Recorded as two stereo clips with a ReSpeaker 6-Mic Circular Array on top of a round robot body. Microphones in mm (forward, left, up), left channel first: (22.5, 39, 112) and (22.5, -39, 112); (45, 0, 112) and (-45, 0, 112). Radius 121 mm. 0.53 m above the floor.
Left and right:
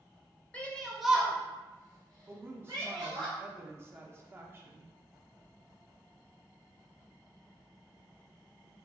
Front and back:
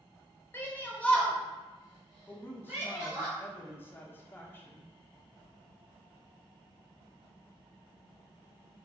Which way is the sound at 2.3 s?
50° right.